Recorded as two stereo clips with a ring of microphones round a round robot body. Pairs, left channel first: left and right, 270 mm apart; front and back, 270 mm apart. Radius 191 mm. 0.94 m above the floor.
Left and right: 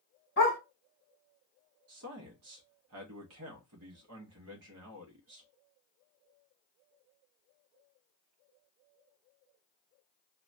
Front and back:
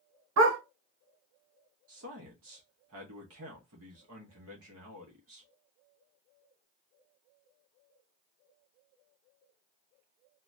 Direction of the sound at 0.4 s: 155° left.